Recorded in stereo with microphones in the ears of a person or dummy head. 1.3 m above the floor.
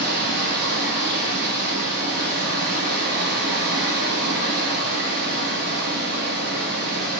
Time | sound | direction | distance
0.0 | running water | 55° right (ahead or behind) | 3 m